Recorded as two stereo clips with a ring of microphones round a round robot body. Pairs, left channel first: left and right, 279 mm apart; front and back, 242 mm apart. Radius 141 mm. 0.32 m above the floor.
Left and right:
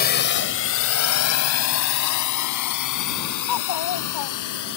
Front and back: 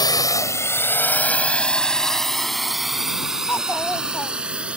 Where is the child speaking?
80° left.